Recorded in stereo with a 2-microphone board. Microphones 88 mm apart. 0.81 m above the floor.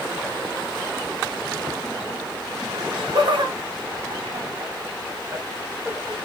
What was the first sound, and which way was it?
Laughter, 70° right (ahead or behind).